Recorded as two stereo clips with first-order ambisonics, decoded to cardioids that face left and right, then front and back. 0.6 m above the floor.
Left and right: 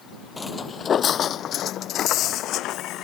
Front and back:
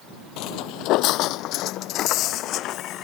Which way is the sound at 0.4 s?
10° left.